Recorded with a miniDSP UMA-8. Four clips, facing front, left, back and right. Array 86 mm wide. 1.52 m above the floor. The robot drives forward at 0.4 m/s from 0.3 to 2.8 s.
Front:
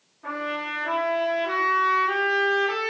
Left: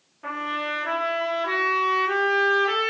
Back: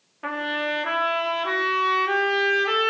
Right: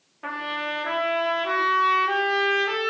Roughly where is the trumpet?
Behind.